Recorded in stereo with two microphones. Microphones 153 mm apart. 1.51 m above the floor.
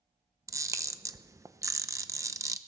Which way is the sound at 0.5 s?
20° right (ahead or behind).